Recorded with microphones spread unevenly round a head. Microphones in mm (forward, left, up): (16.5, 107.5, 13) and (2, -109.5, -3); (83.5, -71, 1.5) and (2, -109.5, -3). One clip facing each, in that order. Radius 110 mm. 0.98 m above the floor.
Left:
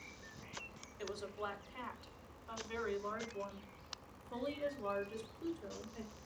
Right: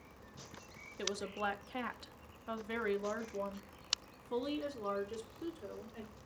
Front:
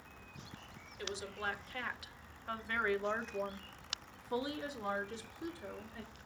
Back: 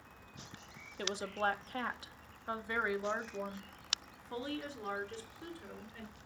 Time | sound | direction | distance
1.0 | a woman speaking | 120° right | 1.5 m